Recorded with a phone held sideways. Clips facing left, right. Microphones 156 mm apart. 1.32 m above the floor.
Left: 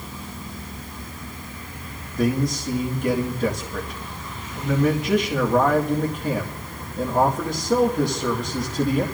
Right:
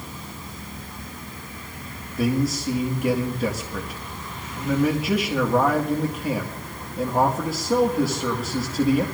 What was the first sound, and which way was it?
A man speaking, 5° right (ahead or behind).